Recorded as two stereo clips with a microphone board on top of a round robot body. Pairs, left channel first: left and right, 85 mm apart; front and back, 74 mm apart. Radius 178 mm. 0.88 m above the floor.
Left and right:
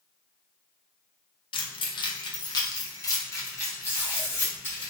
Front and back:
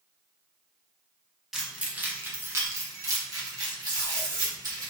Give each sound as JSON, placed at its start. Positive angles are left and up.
{"t": 1.5, "sound": "keys jangling", "azimuth_deg": 95, "distance_m": 0.8}
{"t": 3.9, "sound": "tape being pulled", "azimuth_deg": 160, "distance_m": 0.7}